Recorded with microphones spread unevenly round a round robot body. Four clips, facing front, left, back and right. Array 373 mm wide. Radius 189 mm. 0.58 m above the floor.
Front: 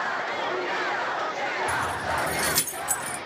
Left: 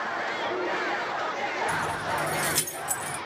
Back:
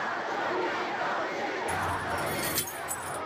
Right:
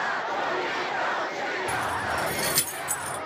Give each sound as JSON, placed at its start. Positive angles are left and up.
{"t": 1.7, "sound": "keys jangling", "azimuth_deg": -55, "distance_m": 1.5}